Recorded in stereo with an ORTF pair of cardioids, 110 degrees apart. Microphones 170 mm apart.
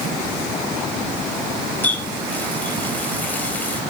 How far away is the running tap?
About 4 m.